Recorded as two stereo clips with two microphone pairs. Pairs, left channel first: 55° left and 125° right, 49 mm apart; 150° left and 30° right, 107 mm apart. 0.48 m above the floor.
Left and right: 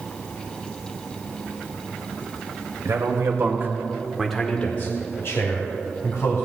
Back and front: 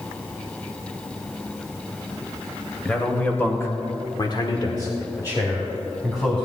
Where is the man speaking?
130° right, 2 m; by 6.5 s 80° left, 3 m.